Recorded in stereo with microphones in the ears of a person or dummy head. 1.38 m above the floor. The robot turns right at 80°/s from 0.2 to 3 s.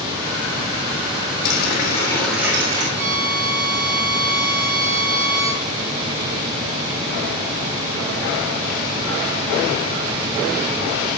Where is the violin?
65° right (ahead or behind), 1.9 m; by 5.6 s 60° right (ahead or behind), 1.9 m.